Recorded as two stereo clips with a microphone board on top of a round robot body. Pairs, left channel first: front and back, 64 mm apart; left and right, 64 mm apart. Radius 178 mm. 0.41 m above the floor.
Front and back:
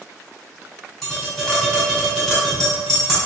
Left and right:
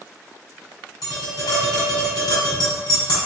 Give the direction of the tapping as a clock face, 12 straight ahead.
9 o'clock.